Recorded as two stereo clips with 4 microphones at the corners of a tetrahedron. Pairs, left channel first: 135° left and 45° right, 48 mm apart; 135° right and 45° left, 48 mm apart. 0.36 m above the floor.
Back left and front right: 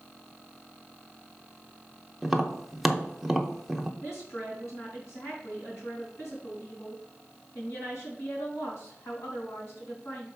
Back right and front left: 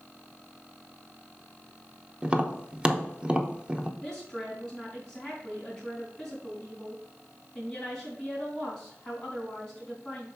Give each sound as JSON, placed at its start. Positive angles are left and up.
{"t": 2.2, "sound": "tapping", "azimuth_deg": 35, "distance_m": 0.7}
{"t": 4.0, "sound": "a woman speaking", "azimuth_deg": 150, "distance_m": 3.5}